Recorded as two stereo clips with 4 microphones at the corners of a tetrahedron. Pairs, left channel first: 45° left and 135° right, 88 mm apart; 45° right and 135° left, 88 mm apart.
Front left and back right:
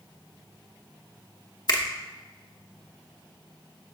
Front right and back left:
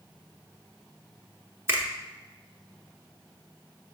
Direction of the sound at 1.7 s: 75° left.